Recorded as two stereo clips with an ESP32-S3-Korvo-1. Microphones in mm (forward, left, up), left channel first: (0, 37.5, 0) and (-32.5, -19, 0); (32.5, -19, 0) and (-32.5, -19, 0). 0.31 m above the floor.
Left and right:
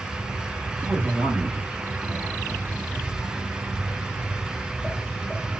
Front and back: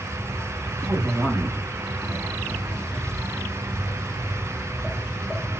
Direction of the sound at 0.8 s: 175° left.